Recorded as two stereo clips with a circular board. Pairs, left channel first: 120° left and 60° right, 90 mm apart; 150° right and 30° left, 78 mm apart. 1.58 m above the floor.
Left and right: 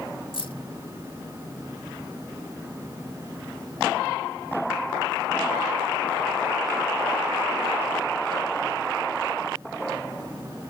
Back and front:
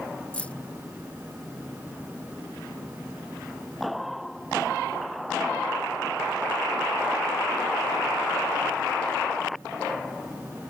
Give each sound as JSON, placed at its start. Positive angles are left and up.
{"t": 0.3, "sound": "keys jangling", "azimuth_deg": 135}